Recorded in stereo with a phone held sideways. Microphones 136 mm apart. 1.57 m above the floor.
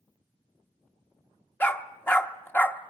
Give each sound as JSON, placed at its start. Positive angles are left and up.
{"t": 1.6, "sound": "a dog barking", "side_deg": 15, "distance_m": 1.0}